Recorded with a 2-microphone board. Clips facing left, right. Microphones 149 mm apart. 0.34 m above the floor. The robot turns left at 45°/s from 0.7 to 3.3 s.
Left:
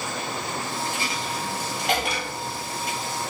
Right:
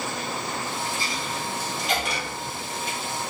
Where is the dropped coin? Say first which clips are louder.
Left 1 dB; 70° left (ahead or behind), 1.8 m; by 3.0 s 20° left (ahead or behind), 1.8 m.